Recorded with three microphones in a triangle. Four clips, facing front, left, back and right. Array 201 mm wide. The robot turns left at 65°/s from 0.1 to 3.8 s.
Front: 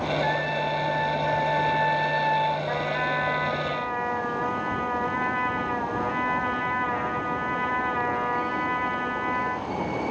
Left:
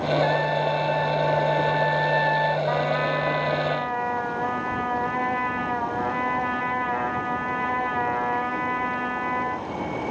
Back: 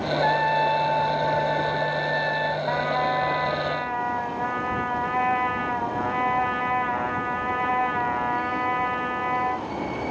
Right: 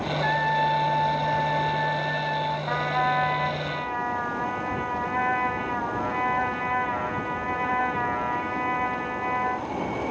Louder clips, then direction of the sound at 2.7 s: Left 1 dB, back 3 dB; 140° right.